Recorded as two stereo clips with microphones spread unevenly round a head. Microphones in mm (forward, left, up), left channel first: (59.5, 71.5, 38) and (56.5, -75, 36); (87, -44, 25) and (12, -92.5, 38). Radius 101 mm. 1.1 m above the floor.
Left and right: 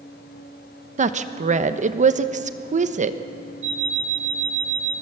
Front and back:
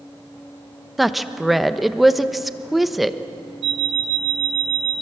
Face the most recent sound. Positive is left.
turn(degrees=-145)